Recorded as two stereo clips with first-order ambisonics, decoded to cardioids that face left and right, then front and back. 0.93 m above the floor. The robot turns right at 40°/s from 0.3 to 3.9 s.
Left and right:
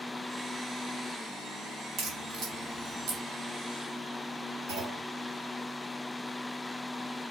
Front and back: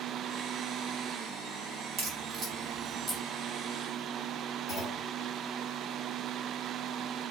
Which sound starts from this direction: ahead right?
A clunk, at 4.7 s.